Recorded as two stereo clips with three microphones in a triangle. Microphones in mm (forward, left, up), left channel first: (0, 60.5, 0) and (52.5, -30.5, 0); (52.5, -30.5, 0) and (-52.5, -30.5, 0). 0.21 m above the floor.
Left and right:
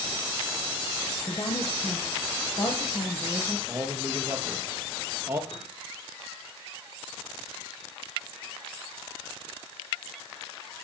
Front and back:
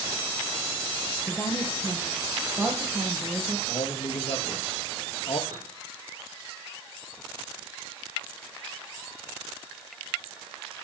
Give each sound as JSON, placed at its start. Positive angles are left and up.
{"t": 1.2, "sound": "a woman speaking", "azimuth_deg": 70, "distance_m": 7.0}
{"t": 3.7, "sound": "a man speaking", "azimuth_deg": 5, "distance_m": 4.5}
{"t": 5.5, "sound": "a piano", "azimuth_deg": 135, "distance_m": 7.5}